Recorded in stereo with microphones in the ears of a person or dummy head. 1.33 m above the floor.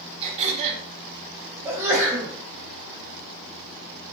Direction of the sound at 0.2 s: 40° right (ahead or behind).